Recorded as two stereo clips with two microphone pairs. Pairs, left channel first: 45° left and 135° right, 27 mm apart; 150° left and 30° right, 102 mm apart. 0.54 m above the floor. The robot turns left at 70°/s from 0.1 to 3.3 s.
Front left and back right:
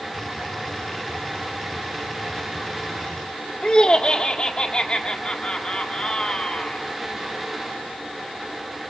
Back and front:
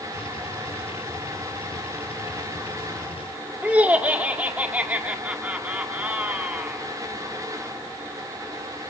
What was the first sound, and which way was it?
Laughter, 35° left.